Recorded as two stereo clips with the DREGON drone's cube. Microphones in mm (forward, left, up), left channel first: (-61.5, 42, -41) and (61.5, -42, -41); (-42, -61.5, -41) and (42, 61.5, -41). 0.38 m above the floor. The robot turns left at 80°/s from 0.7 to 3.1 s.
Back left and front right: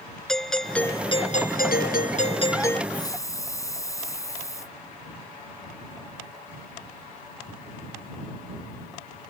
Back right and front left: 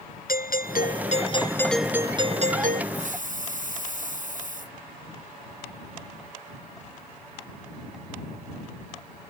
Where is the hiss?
90° left; by 4.8 s 80° left.